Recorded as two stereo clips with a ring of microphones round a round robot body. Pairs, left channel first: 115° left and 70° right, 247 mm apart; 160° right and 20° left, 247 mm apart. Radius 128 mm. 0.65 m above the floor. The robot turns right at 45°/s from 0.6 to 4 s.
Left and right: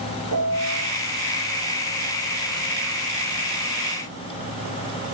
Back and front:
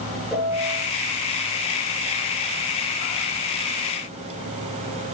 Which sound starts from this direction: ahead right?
A piano, at 0.3 s.